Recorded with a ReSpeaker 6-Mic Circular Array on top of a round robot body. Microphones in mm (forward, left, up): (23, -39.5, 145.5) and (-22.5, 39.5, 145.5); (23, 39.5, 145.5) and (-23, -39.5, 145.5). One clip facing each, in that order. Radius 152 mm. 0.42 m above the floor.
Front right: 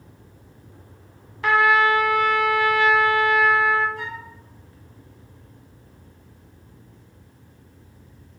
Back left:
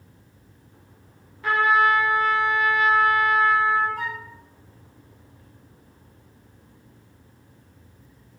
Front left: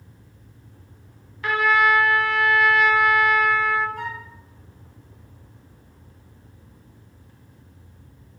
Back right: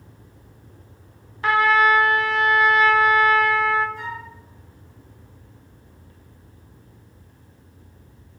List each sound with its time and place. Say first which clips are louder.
1.4 s a trumpet: front right 2 dB, back right 2 dB; 65° right, 0.9 m
4.0 s a flute: back left 2 dB, even; 90° left, 1.7 m